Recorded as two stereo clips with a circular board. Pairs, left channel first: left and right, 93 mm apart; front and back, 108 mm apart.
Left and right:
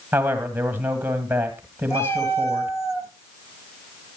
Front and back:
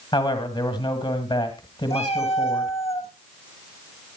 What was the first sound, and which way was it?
A man speaking, 25° right.